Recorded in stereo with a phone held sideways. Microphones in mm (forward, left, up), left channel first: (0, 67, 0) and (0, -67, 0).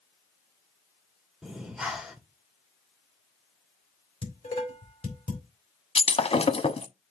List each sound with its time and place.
1.4 s breathing: 5° right (ahead or behind), 2 m
4.2 s dishes clattering: 45° left (ahead or behind), 4.5 m
6.0 s breaking glass: 45° left (ahead or behind), 0.9 m